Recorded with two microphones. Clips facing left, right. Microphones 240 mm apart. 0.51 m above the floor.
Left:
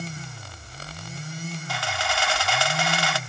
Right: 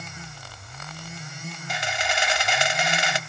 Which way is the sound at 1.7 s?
20° right (ahead or behind).